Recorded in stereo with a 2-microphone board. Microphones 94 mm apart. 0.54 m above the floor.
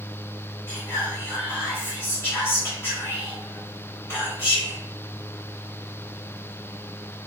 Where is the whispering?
25° left (ahead or behind), 1.6 m.